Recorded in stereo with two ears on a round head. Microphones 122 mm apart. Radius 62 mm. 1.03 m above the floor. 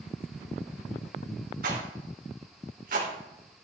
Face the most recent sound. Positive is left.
turn(degrees=-65)  # may be behind; listen again after turning